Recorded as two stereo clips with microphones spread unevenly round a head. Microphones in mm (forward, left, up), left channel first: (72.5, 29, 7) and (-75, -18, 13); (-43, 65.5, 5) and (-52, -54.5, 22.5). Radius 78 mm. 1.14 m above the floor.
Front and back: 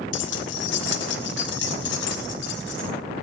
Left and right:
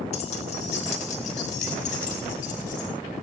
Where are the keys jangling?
30° left, 1.8 m; by 2.9 s 40° left, 4.5 m.